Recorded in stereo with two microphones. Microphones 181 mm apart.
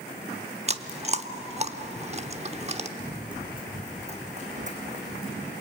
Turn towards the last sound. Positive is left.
turn(degrees=-55)  # may be behind; listen again after turning